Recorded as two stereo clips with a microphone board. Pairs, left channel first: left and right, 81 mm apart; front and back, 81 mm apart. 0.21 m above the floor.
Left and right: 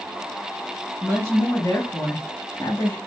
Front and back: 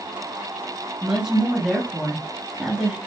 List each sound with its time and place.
1.0 s a woman speaking: 105° left, 1.7 m